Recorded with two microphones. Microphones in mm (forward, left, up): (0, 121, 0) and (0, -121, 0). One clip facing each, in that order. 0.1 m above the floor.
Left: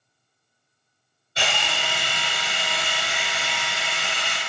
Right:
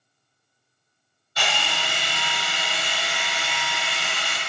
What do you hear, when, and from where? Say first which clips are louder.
1.4 s a drill: left 1 dB; 25° left (ahead or behind), 1.0 m